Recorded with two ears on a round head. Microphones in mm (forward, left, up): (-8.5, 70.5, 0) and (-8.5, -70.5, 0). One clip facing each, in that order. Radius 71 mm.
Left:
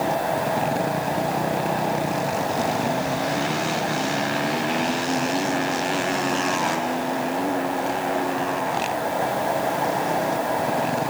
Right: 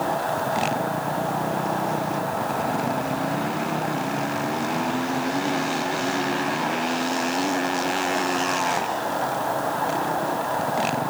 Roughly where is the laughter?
No laughter in this recording.